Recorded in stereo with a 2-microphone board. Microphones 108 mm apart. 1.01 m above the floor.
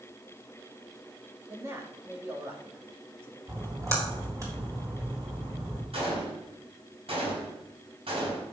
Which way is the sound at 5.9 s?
65° right (ahead or behind).